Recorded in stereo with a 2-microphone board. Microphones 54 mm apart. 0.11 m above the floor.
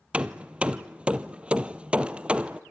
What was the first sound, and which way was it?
Hammering, 20° right (ahead or behind).